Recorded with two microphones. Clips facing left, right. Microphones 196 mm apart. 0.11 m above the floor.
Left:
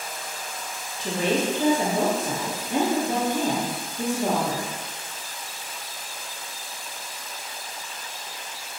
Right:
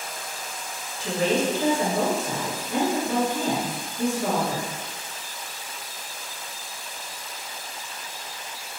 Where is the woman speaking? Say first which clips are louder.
Right 1 dB; 20° left (ahead or behind), 1.1 m.